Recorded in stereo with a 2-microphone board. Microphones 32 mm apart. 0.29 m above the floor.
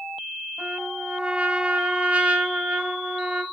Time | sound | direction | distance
0.6 | a trumpet | 40° right (ahead or behind) | 1.9 m